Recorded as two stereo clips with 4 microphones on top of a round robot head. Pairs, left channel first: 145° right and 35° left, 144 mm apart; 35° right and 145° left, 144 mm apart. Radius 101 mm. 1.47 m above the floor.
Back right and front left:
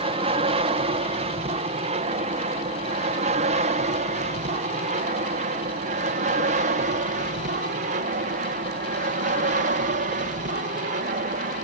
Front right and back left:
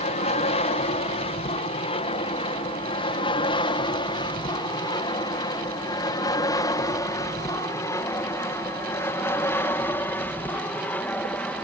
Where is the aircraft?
5° right; by 11.7 s 45° left.